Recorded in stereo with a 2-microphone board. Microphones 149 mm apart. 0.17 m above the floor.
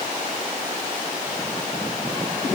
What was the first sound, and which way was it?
Only background noise.